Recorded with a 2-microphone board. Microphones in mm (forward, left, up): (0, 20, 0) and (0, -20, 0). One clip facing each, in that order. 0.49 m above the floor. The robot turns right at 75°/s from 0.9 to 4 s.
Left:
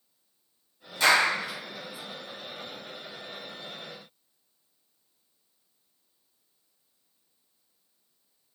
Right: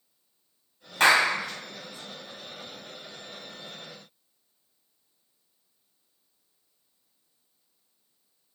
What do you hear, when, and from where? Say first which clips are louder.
1.0 s a clap: right 2 dB; 55° right (ahead or behind), 2.5 m; by 1.3 s 70° right (ahead or behind), 2.5 m